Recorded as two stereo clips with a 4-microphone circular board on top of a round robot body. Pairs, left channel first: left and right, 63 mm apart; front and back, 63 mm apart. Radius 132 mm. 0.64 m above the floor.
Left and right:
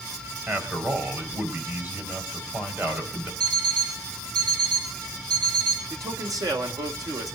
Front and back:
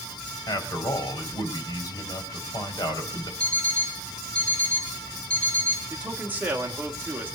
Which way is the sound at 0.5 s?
30° right.